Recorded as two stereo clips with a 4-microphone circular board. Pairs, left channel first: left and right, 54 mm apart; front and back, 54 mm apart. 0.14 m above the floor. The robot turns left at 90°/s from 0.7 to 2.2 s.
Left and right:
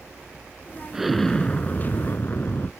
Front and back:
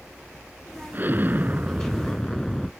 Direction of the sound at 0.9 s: 165° right.